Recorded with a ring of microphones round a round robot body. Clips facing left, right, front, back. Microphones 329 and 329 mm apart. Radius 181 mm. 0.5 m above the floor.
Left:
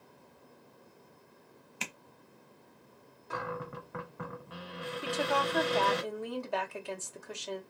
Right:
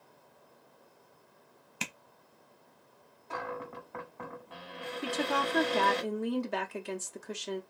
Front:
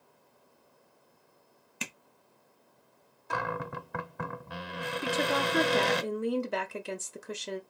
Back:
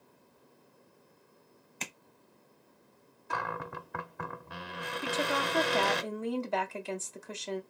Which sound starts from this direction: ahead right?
A woman speaking, at 5.0 s.